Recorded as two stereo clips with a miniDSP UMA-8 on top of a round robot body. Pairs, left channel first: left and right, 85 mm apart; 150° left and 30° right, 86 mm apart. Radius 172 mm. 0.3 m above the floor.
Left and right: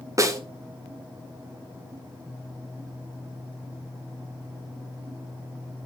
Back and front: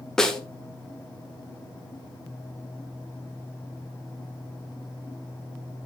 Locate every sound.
0.2 s a snare drum: 130° right, 1.7 m